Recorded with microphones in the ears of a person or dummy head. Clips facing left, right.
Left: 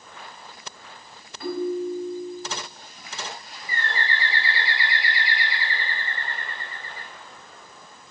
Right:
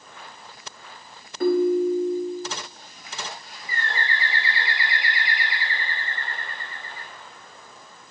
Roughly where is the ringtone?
Right.